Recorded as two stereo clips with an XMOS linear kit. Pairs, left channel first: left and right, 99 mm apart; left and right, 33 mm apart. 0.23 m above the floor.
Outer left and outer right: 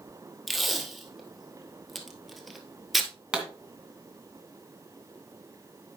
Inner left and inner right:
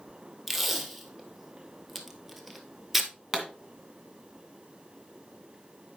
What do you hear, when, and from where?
0.5 s tape being pulled: centre (ahead or behind), 1.1 m
3.3 s a pop: 10° right (ahead or behind), 2 m